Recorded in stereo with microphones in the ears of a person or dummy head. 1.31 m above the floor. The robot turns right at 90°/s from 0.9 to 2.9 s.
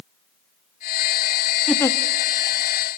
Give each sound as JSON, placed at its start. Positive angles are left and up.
{"t": 1.7, "sound": "a giggle", "side_deg": 0, "distance_m": 1.4}